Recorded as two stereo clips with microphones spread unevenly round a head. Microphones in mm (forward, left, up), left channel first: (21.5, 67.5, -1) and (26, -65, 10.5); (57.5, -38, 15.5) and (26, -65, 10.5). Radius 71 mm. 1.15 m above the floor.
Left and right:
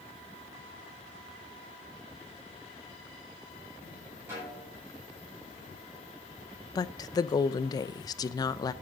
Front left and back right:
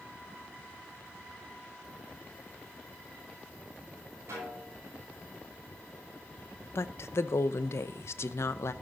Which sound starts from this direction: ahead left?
A woman speaking, at 6.8 s.